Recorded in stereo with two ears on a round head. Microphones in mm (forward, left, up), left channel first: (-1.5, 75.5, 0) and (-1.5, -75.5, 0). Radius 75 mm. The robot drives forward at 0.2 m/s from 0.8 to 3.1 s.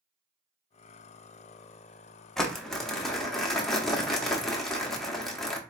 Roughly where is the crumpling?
Centre.